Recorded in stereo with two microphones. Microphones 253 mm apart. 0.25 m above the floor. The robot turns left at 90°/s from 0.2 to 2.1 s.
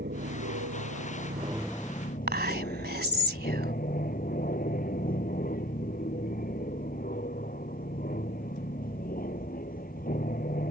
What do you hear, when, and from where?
0.0 s an aircraft: 45° right; by 10.7 s 145° left
2.3 s whispering: 40° right (ahead or behind)